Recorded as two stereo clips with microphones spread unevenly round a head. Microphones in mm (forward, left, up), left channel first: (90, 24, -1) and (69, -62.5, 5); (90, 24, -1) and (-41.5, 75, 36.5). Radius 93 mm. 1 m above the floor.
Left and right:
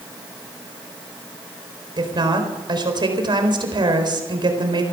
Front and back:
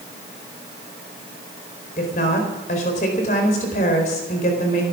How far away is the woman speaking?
About 4 m.